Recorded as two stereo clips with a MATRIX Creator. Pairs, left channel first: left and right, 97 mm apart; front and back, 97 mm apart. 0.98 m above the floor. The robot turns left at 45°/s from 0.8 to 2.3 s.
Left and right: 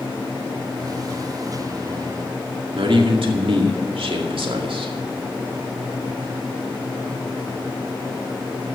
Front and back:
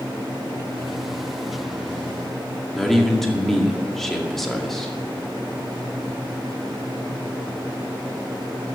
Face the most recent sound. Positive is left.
turn(degrees=-85)